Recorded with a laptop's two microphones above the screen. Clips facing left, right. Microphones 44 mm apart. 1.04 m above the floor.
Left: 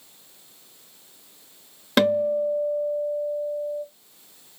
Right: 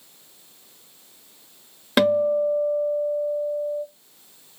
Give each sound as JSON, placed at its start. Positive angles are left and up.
{"t": 2.0, "sound": "a guitar", "side_deg": -5, "distance_m": 0.8}